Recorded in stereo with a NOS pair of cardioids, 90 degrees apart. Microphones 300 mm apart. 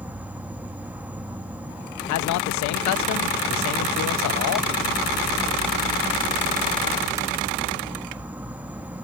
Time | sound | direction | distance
0.0 | an insect | 5° right | 0.8 m
2.1 | a man speaking | 65° left | 0.8 m